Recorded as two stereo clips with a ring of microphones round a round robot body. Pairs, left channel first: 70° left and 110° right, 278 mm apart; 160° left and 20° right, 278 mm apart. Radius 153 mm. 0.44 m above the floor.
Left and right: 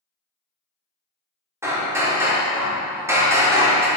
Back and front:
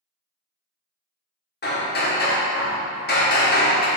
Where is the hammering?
170° left, 1.3 m.